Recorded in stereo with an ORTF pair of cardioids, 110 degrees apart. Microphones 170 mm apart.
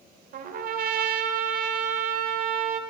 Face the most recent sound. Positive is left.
turn(degrees=-55)